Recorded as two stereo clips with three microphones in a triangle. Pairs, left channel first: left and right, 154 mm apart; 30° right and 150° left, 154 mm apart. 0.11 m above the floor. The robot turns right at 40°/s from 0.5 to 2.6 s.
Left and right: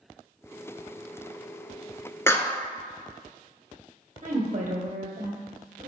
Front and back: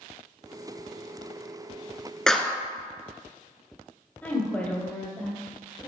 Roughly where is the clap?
Ahead left.